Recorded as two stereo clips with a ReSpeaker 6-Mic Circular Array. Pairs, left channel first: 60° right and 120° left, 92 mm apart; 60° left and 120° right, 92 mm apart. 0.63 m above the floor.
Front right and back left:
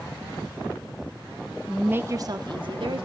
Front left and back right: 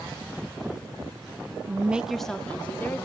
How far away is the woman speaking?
About 0.5 m.